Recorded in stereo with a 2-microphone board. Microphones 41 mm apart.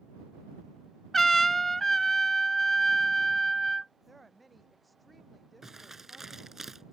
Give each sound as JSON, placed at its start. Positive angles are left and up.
{"t": 1.1, "sound": "a trumpet", "side_deg": 5}
{"t": 4.1, "sound": "a woman speaking", "side_deg": 5}
{"t": 5.6, "sound": "crumpling", "side_deg": -5}